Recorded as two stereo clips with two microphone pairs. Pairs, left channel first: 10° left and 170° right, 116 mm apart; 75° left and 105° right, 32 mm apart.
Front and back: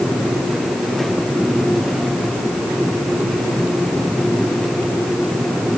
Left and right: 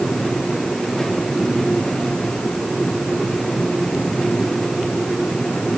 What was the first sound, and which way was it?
Only background noise.